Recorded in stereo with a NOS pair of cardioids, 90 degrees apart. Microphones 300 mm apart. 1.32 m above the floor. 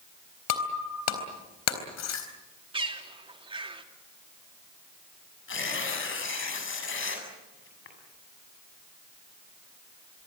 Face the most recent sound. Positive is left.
turn(degrees=40)